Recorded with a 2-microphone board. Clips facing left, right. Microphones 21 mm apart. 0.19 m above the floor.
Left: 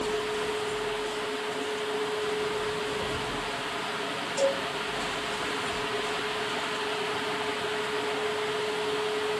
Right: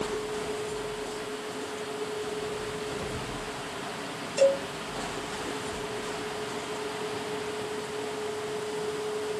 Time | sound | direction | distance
4.4 | a cowbell | 20° right (ahead or behind) | 1.0 m